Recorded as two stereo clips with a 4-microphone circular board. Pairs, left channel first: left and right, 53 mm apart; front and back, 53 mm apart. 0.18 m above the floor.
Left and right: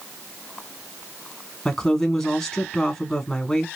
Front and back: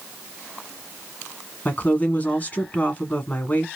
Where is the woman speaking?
20° left, 1.1 m.